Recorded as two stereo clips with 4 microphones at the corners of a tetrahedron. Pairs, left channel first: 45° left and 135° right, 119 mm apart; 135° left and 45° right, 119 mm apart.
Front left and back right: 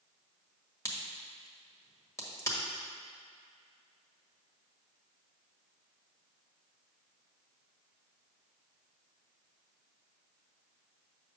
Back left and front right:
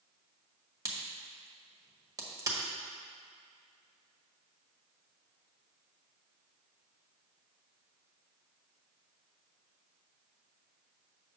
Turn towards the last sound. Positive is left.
turn(degrees=-5)